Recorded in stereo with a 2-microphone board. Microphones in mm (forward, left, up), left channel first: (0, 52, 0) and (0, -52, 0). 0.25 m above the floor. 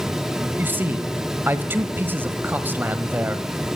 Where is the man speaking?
20° right (ahead or behind), 1.0 m.